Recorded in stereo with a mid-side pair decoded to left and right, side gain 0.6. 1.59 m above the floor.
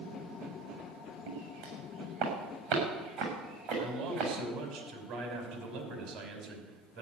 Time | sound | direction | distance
1.3 | footsteps | 65° right | 8.5 m
3.8 | a man speaking | 65° right | 6.5 m